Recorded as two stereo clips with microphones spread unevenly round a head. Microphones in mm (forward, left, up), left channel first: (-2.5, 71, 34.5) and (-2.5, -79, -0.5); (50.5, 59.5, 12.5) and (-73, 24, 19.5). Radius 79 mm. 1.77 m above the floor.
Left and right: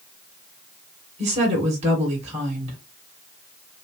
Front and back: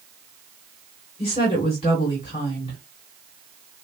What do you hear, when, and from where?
1.2 s a woman speaking: 40° right, 2.5 m